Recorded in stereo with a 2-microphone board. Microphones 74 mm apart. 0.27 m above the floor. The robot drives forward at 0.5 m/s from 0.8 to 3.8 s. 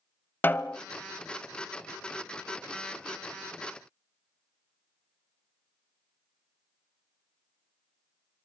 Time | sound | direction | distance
0.4 | a snare drum | 25° left (ahead or behind) | 0.6 m